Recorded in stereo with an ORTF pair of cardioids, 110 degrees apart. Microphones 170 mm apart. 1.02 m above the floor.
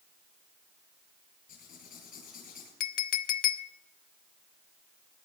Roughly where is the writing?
Ahead left.